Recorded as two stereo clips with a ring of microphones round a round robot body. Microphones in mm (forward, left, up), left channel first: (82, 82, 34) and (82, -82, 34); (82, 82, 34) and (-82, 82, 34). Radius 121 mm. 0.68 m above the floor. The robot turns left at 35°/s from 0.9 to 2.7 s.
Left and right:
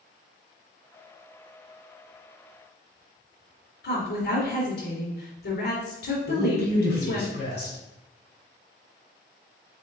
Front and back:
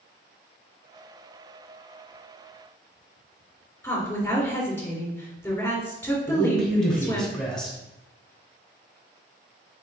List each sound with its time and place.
3.8 s a woman speaking: 75° left, 2.5 m
6.3 s a man speaking: 85° left, 2.5 m